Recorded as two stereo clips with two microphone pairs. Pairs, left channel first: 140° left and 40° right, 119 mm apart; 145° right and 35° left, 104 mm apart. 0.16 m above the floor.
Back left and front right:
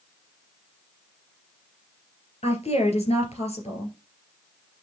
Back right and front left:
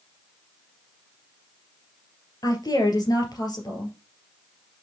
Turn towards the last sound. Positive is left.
turn(degrees=165)